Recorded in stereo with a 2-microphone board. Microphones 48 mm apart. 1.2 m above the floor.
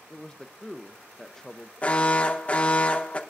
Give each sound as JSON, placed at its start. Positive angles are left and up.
{"t": 0.1, "sound": "a man speaking", "side_deg": 10, "distance_m": 0.7}
{"t": 1.8, "sound": "an alarm", "side_deg": 25, "distance_m": 1.1}